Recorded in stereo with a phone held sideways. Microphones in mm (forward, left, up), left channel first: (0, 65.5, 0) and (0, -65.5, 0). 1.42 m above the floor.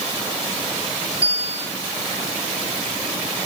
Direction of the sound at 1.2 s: 65° left (ahead or behind).